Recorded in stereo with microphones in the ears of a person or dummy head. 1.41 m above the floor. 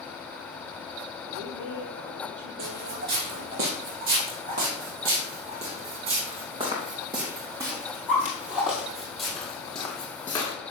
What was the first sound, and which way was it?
A woman speaking, 75° right (ahead or behind).